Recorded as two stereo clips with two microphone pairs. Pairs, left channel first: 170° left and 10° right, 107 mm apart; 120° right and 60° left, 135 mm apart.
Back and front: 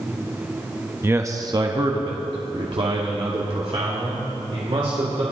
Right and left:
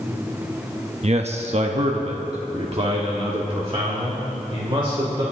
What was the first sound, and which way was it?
A man speaking, 55° left.